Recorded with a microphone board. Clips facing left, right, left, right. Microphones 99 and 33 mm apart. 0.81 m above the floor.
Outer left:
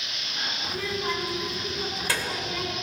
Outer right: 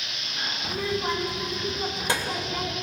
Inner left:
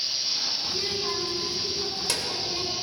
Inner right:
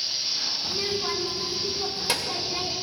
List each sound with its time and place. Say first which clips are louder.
0.6 s a child speaking: outer right 3 dB, inner right 1 dB; 25° right (ahead or behind), 2.5 m